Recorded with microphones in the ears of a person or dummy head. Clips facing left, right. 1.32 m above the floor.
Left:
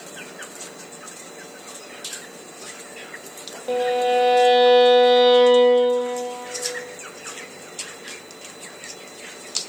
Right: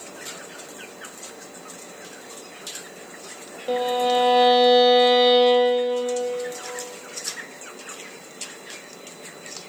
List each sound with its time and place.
3.7 s a violin: 10° right (ahead or behind), 0.5 m